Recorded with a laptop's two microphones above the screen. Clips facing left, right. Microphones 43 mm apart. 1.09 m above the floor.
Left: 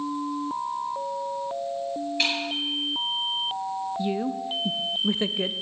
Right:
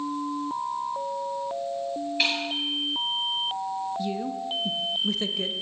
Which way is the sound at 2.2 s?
5° right (ahead or behind).